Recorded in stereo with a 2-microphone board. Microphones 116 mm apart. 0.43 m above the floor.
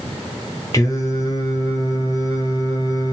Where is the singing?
30° left (ahead or behind), 0.8 m.